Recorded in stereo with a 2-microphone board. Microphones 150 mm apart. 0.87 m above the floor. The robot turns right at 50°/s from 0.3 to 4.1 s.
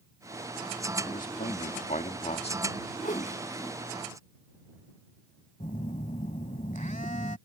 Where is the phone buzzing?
55° left (ahead or behind).